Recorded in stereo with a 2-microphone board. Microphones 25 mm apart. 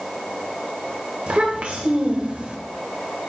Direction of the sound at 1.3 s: 55° right (ahead or behind).